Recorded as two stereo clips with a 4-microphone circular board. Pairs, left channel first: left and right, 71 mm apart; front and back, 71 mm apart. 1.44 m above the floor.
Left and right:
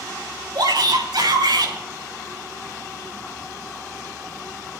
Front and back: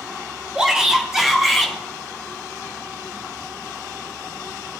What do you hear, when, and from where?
0.6 s a shout: 100° right, 4.5 m; by 1.8 s 90° right, 5.5 m